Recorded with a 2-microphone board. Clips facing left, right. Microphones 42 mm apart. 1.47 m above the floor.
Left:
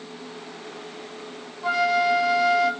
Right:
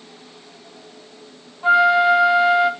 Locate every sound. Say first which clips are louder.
1.6 s a flute: right 7 dB; 25° right (ahead or behind), 1.7 m